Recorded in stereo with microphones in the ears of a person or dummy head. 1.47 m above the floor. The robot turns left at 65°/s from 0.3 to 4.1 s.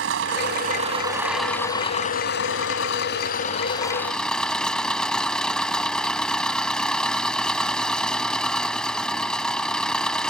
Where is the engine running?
110° right; by 10.3 s 5° left.